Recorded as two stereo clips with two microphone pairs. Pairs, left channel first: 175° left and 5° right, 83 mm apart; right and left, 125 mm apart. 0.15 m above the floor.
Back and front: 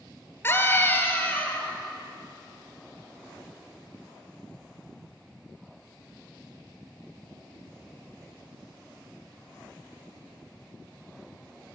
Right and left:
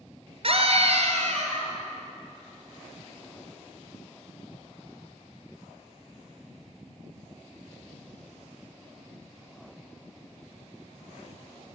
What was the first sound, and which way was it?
A scream, 115° left.